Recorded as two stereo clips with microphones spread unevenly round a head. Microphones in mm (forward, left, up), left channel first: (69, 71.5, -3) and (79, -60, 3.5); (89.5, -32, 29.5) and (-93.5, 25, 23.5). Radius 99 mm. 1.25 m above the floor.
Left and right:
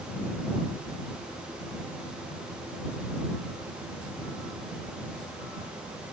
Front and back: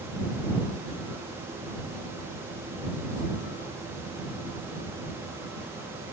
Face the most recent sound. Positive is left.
No sound to turn to.